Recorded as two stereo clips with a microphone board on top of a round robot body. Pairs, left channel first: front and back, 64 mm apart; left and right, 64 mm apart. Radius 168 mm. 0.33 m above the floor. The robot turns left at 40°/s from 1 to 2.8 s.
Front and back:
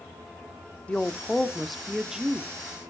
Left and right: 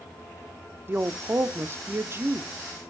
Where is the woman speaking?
60° right, 1.1 m; by 2.5 s 120° right, 1.1 m.